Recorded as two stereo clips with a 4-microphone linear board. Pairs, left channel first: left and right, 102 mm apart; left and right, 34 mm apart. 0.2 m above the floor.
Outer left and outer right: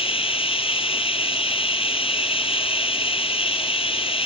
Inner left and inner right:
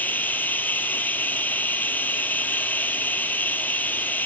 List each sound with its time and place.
0.0 s running water: 75° left (ahead or behind), 0.9 m